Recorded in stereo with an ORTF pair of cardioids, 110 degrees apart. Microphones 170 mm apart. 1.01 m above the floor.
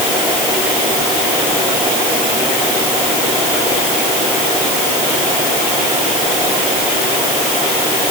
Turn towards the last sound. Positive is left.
No sound to turn to.